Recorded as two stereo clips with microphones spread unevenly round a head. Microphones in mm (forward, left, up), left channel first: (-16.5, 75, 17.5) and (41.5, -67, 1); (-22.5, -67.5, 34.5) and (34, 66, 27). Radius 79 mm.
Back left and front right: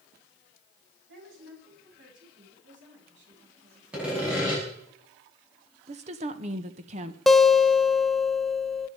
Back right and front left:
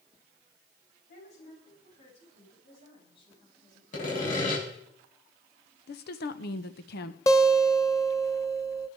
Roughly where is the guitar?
Behind.